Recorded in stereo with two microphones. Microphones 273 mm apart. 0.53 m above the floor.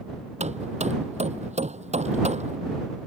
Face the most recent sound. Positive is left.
turn(degrees=-25)  # may be behind; listen again after turning